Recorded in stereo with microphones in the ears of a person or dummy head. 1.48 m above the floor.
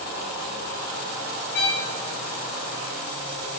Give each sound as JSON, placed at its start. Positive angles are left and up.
{"t": 1.5, "sound": "a violin", "side_deg": 55, "distance_m": 0.7}